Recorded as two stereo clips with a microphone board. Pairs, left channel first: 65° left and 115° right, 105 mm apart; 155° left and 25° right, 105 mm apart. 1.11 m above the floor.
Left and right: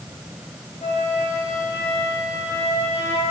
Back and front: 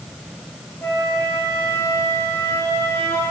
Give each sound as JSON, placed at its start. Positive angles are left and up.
{"t": 0.8, "sound": "a flute", "azimuth_deg": 85, "distance_m": 1.4}